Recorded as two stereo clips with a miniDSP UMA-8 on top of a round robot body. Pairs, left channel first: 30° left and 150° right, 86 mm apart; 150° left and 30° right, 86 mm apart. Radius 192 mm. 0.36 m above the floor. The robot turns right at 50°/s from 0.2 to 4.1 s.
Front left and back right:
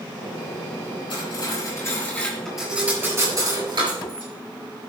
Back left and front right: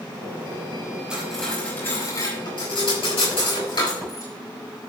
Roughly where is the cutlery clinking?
Ahead left.